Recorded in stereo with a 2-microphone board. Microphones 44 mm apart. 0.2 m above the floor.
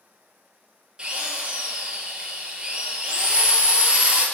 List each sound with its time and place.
1.0 s a drill: 20° right (ahead or behind), 2.0 m